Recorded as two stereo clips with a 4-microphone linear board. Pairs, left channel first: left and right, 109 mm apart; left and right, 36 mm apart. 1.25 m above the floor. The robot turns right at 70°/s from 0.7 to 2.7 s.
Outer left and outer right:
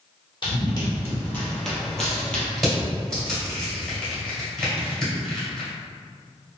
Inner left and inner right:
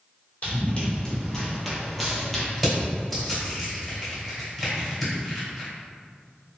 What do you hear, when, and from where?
0.4 s running footsteps: 40° left (ahead or behind), 1.7 m; by 2.5 s 15° left (ahead or behind), 1.2 m
2.6 s crushing: 5° right (ahead or behind), 1.6 m; by 5.7 s 5° left (ahead or behind), 1.6 m